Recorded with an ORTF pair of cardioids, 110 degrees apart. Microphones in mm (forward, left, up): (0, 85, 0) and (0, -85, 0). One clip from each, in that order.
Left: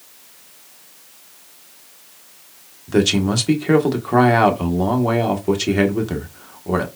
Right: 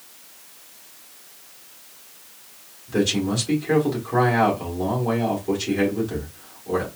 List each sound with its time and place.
2.9 s a man speaking: 55° left, 1.2 m